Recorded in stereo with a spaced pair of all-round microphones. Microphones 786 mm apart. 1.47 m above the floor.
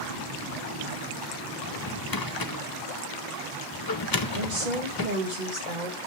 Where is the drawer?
30° left (ahead or behind), 0.7 m.